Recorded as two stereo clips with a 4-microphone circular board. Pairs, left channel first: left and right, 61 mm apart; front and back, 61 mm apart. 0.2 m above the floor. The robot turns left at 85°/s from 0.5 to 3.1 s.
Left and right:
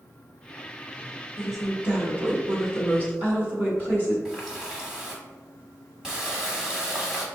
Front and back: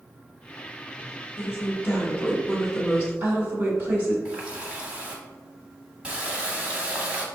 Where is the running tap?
145° right, 0.9 m.